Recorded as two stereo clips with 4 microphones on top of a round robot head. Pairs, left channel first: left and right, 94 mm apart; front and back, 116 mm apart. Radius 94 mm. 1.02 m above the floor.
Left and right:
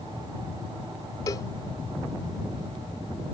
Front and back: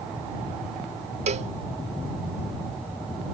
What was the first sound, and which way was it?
A cowbell, 155° left.